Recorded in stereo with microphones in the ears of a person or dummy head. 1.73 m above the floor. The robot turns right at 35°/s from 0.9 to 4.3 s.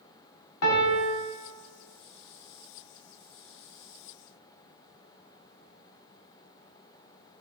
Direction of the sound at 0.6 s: 80° left.